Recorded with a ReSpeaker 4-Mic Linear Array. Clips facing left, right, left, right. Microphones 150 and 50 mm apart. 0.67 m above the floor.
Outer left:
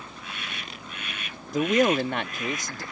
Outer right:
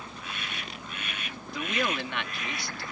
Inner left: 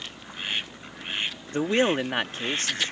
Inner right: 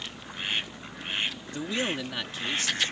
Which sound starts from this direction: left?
A man speaking, at 1.5 s.